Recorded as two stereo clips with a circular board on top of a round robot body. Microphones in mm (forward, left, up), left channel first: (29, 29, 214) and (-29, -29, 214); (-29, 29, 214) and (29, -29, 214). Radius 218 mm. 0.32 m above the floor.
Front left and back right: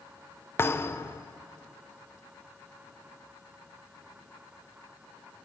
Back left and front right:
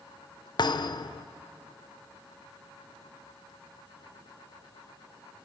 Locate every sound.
0.6 s a thud: 105° left, 0.7 m